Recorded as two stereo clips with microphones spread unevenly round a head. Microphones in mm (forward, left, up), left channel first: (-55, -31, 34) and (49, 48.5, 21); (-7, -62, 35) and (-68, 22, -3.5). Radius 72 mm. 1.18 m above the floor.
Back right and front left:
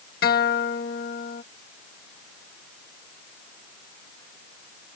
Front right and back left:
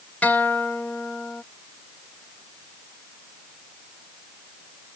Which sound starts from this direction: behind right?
A guitar, at 0.2 s.